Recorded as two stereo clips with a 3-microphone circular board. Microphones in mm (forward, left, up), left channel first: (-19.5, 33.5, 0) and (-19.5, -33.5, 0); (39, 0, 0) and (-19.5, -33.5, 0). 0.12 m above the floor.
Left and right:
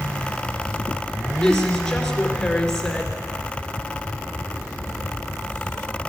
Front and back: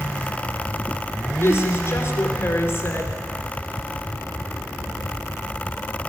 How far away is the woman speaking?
About 2 m.